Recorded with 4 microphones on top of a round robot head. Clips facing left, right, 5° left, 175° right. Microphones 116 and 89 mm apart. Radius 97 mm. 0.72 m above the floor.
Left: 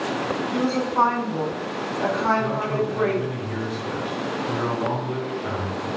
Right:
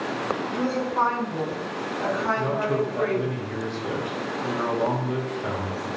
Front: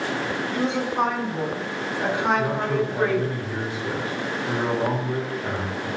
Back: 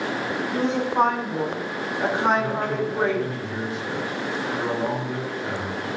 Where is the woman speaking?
160° left, 3.5 m; by 3.3 s 130° left, 2 m.